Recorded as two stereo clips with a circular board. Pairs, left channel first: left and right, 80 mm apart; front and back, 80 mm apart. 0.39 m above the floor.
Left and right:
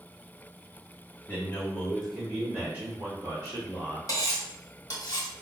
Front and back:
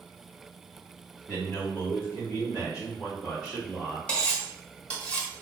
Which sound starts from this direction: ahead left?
A man speaking, at 1.3 s.